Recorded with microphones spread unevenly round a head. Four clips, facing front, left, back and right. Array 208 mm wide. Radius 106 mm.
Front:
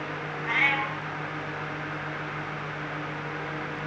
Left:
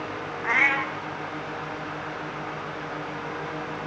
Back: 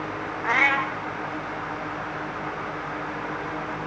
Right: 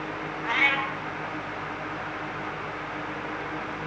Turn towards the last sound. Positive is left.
turn(degrees=160)